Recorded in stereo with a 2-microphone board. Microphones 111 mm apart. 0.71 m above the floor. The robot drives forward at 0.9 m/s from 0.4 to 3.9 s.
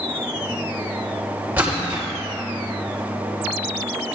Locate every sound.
1.6 s a splash: 15° right (ahead or behind), 2.5 m; by 2.1 s 20° right (ahead or behind), 2 m